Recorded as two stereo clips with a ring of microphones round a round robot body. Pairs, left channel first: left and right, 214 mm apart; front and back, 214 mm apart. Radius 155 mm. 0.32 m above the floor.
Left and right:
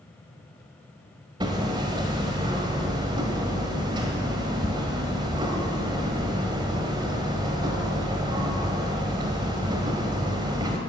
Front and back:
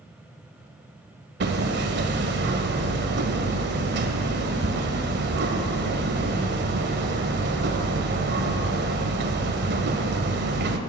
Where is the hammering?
160° right, 1.2 m.